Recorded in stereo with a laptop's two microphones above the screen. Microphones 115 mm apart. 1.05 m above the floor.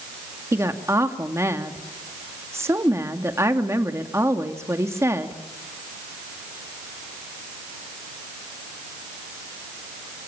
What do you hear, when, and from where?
0.5 s a woman speaking: 25° right (ahead or behind), 2.5 m